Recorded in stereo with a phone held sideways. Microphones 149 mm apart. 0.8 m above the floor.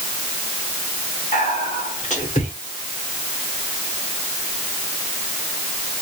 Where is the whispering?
55° left (ahead or behind), 2.5 m.